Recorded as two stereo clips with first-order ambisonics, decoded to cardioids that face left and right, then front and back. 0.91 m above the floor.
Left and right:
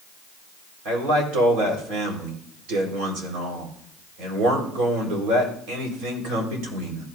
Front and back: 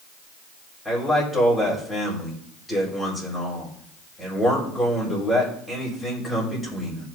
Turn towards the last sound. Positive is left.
turn(degrees=-80)